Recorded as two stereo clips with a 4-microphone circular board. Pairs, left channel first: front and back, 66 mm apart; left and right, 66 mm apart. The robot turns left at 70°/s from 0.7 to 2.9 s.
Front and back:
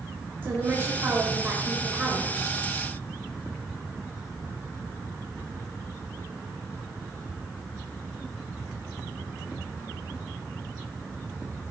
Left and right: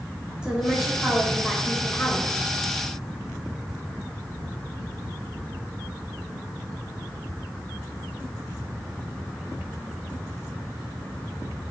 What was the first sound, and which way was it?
A woman speaking, 155° right.